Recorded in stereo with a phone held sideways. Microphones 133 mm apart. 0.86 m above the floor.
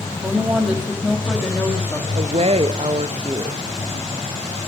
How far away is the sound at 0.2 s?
About 1.7 m.